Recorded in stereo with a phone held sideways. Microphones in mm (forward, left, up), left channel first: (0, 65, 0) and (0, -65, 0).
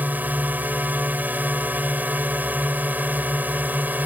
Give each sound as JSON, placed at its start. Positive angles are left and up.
{"t": 0.0, "sound": "a drone", "side_deg": -10}